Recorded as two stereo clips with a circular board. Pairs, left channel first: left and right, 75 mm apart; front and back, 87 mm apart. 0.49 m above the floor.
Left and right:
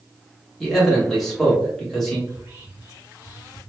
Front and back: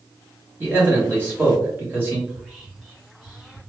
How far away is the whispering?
About 0.7 m.